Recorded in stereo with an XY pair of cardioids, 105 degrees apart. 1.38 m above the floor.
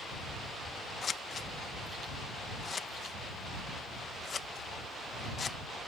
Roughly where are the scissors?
Ahead left.